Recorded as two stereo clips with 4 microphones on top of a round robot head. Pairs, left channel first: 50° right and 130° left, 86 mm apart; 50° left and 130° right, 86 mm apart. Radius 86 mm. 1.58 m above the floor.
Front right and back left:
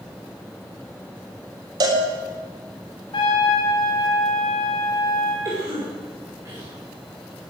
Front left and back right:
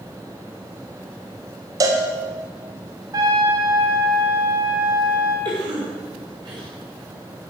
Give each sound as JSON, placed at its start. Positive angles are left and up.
{"t": 1.8, "sound": "a cowbell", "azimuth_deg": 175, "distance_m": 2.0}
{"t": 3.1, "sound": "a trumpet", "azimuth_deg": -85, "distance_m": 3.5}
{"t": 5.5, "sound": "a cough", "azimuth_deg": -170, "distance_m": 6.0}